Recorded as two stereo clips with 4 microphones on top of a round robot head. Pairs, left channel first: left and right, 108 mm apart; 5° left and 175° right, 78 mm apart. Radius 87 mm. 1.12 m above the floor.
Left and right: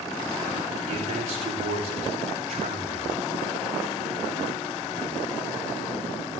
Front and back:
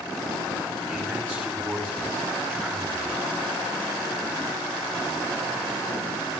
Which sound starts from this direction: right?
A man speaking, at 0.9 s.